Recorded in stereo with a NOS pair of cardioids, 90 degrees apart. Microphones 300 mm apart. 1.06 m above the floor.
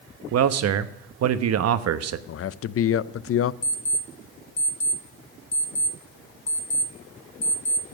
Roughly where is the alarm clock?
Ahead left.